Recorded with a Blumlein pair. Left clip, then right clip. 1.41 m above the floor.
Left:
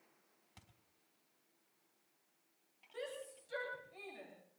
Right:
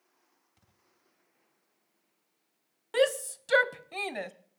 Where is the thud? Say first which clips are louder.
Left 10 dB; 65° left, 3.5 m.